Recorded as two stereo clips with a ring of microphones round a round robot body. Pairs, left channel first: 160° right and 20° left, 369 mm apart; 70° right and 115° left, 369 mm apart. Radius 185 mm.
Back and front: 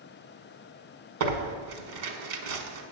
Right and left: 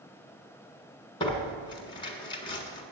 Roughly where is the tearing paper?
Ahead.